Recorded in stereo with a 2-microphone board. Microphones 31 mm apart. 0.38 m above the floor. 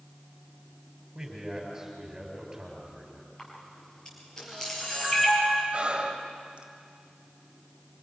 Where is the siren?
No siren in this recording.